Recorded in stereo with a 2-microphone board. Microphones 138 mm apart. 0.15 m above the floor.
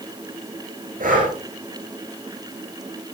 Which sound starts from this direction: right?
Breathing, at 1.0 s.